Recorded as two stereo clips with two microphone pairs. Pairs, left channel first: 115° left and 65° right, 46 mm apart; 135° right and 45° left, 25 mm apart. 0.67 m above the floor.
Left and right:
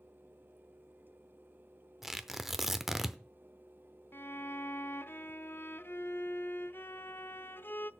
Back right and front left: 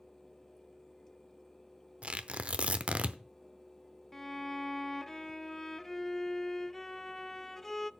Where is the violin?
150° left, 0.6 m.